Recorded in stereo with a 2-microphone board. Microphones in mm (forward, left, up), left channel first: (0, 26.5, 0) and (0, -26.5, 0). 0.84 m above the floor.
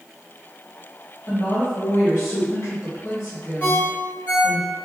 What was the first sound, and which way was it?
A woman speaking, 65° left (ahead or behind).